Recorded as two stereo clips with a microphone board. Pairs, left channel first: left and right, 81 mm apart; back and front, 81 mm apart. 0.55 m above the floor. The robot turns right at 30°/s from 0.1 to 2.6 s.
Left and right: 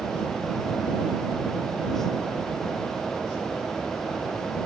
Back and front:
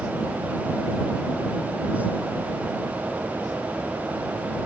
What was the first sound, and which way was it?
Only background noise.